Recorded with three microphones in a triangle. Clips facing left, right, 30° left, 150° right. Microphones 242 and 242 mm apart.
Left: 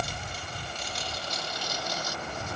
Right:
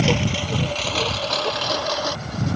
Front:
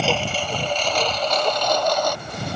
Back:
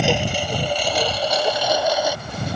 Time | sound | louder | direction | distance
0.0 | a lawn mower | right 18 dB, back 3 dB | 75° right | ?